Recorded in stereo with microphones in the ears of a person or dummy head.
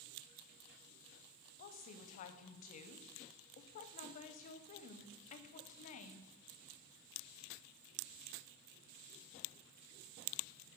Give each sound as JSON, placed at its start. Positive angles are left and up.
{"t": 1.6, "sound": "a woman speaking", "side_deg": 45, "distance_m": 0.6}